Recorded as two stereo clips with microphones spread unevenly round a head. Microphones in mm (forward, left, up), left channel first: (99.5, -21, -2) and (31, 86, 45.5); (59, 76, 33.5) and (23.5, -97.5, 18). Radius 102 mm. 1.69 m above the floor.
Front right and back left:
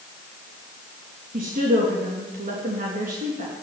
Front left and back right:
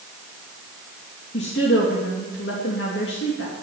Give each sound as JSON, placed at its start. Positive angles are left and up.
{"t": 1.3, "sound": "a woman speaking", "azimuth_deg": 115, "distance_m": 3.0}